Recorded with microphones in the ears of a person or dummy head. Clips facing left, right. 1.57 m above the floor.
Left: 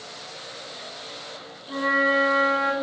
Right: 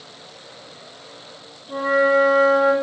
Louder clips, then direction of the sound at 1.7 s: Right 7 dB; 40° left (ahead or behind).